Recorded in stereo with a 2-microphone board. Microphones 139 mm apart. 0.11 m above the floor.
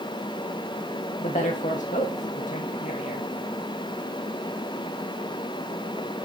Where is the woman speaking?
75° left (ahead or behind), 5.5 m; by 3.3 s 65° left (ahead or behind), 6 m.